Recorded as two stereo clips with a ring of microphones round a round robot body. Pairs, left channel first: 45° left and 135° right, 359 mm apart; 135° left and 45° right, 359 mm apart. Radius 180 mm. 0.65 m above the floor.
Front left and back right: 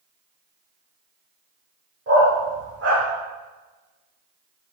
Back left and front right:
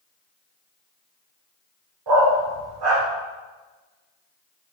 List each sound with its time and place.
2.1 s a dog barking: 75° right, 8.5 m